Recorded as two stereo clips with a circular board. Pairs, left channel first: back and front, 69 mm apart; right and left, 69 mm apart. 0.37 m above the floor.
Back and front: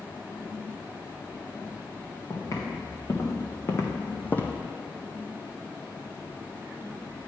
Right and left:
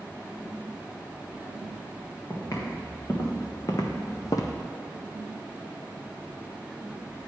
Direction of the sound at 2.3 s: 135° right.